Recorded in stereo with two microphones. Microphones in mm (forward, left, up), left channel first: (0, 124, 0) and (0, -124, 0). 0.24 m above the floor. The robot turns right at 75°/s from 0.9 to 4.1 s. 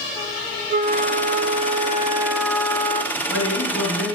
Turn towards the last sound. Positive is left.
turn(degrees=130)